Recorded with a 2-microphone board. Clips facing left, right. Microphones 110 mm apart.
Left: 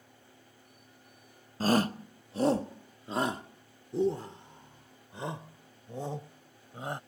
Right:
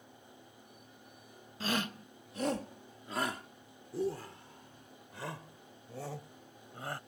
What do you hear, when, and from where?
1.6 s a shout: 40° left (ahead or behind); by 7.0 s 20° left (ahead or behind)